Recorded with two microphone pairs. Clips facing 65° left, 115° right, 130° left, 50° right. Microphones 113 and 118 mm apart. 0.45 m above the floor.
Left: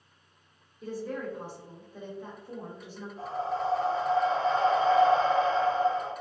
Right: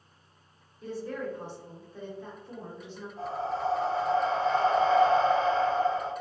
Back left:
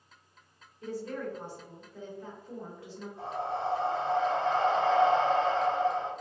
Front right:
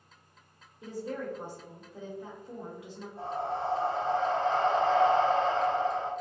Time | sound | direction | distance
0.8 | a woman speaking | straight ahead | 0.7 m
3.2 | breathing | 80° right | 1.5 m